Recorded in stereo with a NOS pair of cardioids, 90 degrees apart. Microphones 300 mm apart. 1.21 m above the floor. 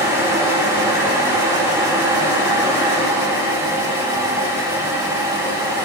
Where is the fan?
10° right, 2.5 m.